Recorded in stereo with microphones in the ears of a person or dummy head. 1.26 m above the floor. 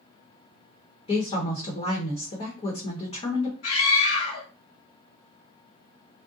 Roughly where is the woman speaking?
Left.